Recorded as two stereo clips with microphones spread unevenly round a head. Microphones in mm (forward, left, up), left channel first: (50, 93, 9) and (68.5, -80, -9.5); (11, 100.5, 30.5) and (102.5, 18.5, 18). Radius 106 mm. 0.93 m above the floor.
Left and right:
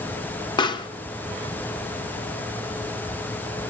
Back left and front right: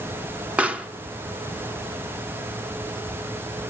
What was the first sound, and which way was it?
A pop, 30° left.